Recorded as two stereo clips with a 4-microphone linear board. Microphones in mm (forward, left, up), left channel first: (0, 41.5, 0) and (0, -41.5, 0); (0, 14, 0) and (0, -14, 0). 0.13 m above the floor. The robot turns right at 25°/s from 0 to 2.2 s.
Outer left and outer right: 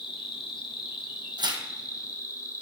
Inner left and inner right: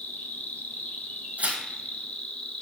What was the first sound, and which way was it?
An insect, 80° left.